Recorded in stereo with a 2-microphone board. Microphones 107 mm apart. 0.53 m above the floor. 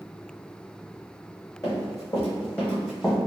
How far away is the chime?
I don't hear a chime.